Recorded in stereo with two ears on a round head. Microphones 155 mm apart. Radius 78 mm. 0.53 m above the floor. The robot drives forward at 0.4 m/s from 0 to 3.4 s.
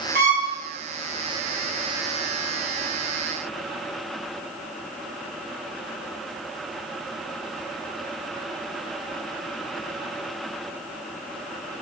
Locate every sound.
0.1 s a violin: 60° right (ahead or behind), 2 m